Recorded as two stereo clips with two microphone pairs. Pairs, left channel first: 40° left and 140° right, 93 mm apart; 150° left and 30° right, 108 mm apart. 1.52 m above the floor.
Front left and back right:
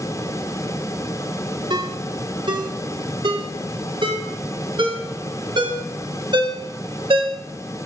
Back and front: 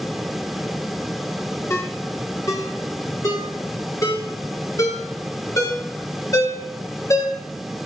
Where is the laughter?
I don't hear laughter.